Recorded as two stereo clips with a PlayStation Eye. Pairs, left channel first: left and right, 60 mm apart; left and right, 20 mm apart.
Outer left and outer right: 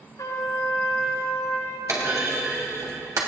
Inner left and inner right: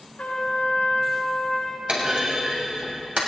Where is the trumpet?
85° left, 4.5 m.